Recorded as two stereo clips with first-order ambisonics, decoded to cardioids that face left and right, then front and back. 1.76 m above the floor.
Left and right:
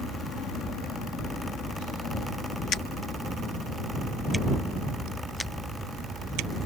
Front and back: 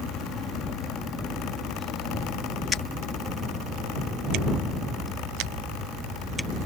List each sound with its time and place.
Only background noise.